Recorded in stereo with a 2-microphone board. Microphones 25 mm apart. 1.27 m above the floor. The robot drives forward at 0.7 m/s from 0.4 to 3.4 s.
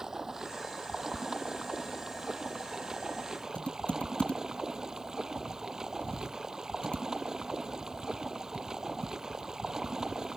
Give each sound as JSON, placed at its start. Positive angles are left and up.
{"t": 0.0, "sound": "running water", "side_deg": -15}
{"t": 3.5, "sound": "typing on a keyboard", "side_deg": 45}